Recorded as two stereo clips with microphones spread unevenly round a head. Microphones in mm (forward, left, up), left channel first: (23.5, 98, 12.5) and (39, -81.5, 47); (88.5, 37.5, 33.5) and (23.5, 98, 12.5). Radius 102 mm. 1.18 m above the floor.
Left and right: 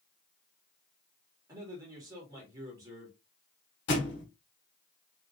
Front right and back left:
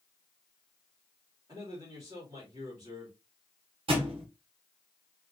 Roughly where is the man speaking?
Behind.